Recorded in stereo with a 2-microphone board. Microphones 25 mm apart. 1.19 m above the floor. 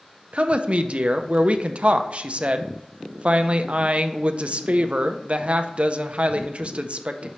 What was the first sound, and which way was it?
A woman speaking, 50° right (ahead or behind).